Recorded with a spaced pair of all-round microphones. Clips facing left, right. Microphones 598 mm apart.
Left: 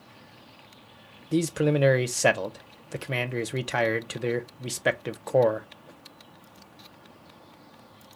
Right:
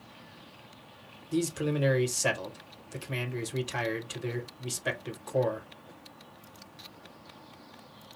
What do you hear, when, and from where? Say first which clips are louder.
1.3 s a man speaking: left 5 dB; 75° left (ahead or behind), 0.7 m